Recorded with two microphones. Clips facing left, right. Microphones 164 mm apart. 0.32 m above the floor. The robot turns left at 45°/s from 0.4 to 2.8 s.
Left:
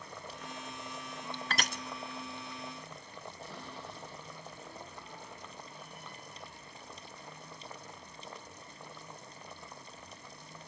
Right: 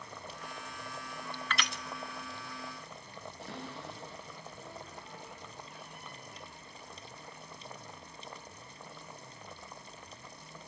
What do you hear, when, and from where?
1.5 s crushing: 40° left (ahead or behind), 0.6 m; by 1.8 s 55° left (ahead or behind), 0.6 m
3.4 s a cupboard door: 75° right (ahead or behind), 8 m